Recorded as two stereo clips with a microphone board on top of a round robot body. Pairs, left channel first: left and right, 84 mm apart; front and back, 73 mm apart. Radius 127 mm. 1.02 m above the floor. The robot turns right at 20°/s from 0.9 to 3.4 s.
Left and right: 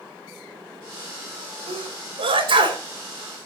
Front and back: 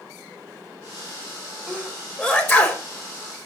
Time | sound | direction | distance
1.7 | a sneeze | 85° right | 3.5 m